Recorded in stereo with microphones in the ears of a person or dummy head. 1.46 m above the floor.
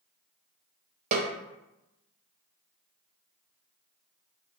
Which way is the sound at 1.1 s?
40° right (ahead or behind).